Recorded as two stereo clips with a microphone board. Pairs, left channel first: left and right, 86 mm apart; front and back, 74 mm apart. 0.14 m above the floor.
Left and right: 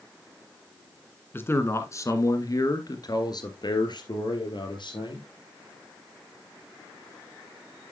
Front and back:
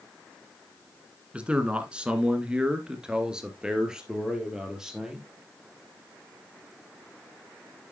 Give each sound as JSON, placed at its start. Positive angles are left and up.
{"t": 1.3, "sound": "a man speaking", "azimuth_deg": 125, "distance_m": 1.5}